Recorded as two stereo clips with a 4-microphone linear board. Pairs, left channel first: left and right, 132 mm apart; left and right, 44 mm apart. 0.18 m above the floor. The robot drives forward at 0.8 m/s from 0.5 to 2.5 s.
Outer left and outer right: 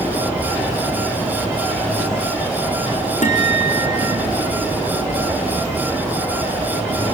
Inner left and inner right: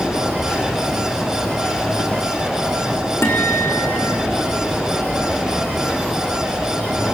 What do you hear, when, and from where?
3.2 s a guitar: 65° left (ahead or behind), 3.5 m